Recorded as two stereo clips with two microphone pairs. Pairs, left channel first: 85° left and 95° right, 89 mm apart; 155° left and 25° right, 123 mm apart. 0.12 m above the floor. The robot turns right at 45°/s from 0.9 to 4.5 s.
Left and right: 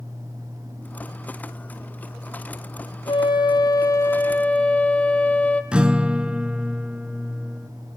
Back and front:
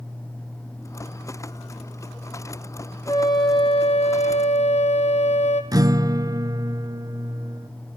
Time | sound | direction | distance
3.1 | a flute | 95° left | 1.6 m
5.7 | a guitar | 25° right | 0.5 m